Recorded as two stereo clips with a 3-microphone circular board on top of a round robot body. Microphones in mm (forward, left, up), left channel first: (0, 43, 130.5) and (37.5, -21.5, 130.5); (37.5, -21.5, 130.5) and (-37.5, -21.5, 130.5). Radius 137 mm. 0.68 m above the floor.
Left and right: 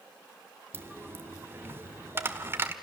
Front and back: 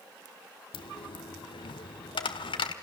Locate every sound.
0.7 s a dropped coin: straight ahead, 0.8 m